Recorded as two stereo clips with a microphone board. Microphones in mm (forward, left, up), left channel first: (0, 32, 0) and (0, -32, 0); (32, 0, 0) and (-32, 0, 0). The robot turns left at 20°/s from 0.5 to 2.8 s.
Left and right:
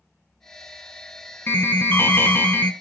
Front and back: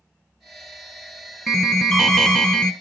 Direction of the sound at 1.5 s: 90° left.